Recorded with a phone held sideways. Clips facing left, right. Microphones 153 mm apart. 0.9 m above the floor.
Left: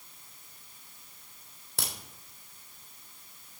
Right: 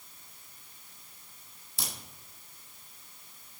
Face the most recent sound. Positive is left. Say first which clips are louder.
# left 2 dB
turn(degrees=70)  # may be behind; listen again after turning